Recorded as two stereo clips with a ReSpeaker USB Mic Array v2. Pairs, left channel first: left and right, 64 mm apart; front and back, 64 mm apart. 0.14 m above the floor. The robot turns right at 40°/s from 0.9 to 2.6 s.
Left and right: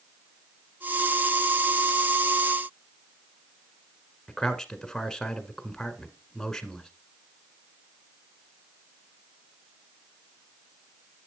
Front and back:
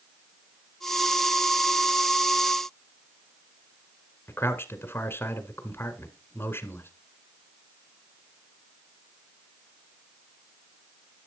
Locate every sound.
4.3 s a man speaking: 15° left, 1.4 m